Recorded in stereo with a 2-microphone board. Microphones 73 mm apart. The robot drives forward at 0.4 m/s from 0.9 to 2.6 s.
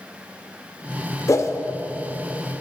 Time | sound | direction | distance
1.3 | a whoosh | 45° left (ahead or behind) | 0.5 m